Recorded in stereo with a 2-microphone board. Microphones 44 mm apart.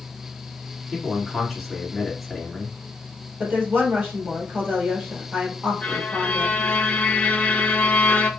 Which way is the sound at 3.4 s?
35° right (ahead or behind).